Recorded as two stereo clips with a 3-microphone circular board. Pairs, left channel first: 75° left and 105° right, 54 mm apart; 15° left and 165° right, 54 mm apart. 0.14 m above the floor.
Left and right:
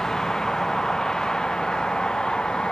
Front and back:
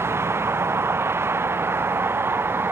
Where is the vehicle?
155° left; by 2.7 s 150° left.